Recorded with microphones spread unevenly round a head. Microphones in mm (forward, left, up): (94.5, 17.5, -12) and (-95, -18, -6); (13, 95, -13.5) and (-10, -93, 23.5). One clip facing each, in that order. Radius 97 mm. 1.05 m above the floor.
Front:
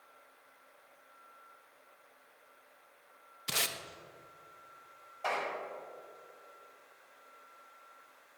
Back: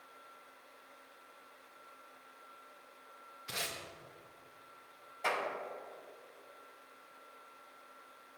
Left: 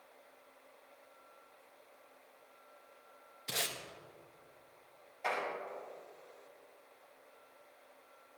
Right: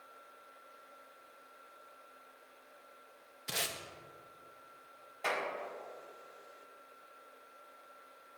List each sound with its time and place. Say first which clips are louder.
3.5 s tape being pulled: front 3 dB, even; 5° right, 1.0 m
5.2 s a clap: front 1 dB, right 1 dB; 115° right, 5 m